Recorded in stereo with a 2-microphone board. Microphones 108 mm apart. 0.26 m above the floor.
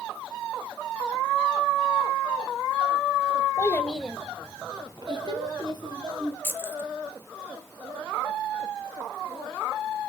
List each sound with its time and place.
3.6 s a child speaking: 30° left (ahead or behind), 0.7 m; by 6.3 s 45° right (ahead or behind), 3 m
6.4 s keys jangling: 20° left (ahead or behind), 0.6 m